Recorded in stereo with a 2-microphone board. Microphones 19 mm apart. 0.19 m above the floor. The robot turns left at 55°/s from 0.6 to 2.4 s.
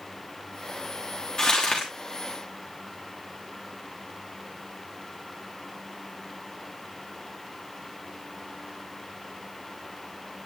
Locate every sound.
1.4 s crumpling: 25° left (ahead or behind), 3.5 m; by 1.9 s 55° left (ahead or behind), 3.5 m